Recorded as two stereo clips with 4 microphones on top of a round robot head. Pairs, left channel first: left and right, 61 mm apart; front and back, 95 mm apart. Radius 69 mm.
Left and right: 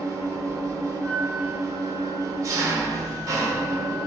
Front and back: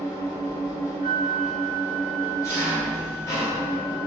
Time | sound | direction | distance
0.0 | an engine running | 60° right | 0.8 m
1.0 | a flute | 165° right | 0.9 m